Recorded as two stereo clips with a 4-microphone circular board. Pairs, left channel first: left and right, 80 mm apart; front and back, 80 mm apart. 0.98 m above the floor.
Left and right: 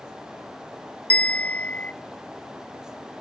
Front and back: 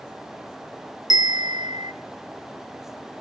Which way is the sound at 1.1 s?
160° left.